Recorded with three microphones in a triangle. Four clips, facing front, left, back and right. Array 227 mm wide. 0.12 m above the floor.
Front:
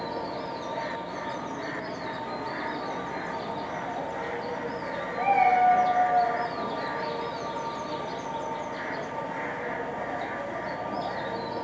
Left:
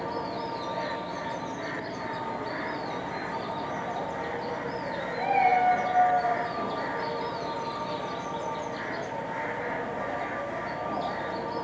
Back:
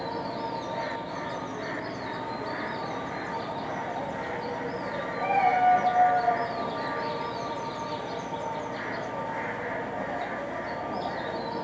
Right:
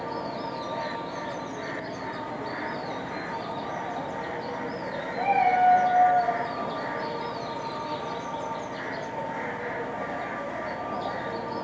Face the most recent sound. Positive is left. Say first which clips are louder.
# right 2 dB, front 2 dB
turn(degrees=-50)